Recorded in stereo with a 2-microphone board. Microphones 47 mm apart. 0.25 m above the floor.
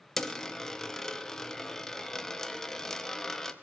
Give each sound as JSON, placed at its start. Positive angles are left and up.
{"t": 0.2, "sound": "a dropped coin", "side_deg": 10, "distance_m": 0.6}